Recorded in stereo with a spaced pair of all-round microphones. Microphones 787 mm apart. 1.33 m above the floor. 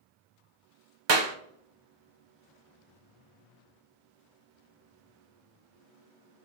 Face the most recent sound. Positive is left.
turn(degrees=-35)  # may be behind; listen again after turning